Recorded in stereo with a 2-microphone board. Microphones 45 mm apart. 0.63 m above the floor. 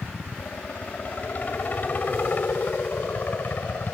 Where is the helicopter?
30° left (ahead or behind); by 4.0 s 45° left (ahead or behind).